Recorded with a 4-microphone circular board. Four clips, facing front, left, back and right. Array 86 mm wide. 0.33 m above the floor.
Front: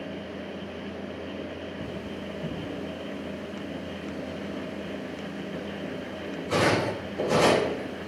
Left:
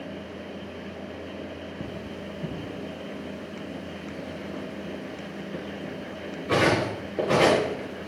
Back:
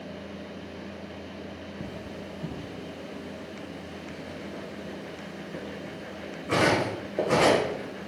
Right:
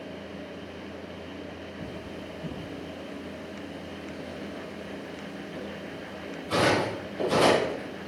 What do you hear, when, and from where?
1.8 s cutlery clinking: 120° left, 3.5 m